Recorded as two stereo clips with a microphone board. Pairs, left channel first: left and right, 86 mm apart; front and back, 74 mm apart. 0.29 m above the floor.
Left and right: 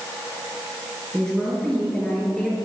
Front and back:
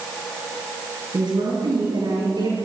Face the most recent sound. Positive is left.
turn(degrees=175)